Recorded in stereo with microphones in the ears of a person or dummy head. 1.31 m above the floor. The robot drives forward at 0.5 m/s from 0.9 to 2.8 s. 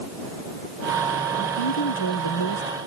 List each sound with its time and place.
1.4 s a woman speaking: 60° left (ahead or behind)